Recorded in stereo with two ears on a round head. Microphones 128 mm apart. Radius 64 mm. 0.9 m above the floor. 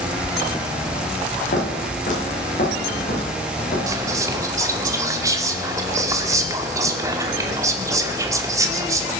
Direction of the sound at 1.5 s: 60° left (ahead or behind).